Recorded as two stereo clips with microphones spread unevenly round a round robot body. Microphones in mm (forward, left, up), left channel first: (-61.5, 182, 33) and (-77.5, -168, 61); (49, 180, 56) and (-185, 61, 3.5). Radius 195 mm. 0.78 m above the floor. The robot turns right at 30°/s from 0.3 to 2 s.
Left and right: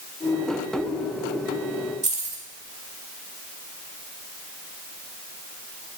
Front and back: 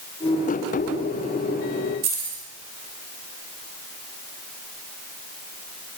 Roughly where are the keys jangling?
Behind.